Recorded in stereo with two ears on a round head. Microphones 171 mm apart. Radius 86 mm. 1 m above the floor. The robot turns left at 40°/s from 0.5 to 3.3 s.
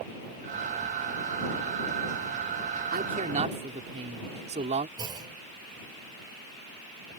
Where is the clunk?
25° right (ahead or behind).